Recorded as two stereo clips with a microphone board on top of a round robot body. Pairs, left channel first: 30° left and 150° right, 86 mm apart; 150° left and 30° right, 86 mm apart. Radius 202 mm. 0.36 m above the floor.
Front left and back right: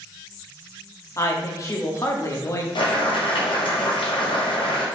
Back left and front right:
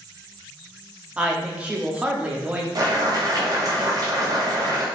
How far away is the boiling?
About 2 m.